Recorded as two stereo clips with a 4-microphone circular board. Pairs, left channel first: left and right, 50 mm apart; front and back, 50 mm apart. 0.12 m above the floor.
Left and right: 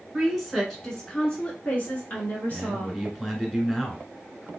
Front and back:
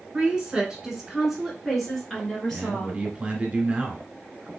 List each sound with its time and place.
0.1 s a woman speaking: 170° right, 1.6 m; by 3.0 s 75° left, 2 m
2.5 s a man speaking: 170° left, 1.1 m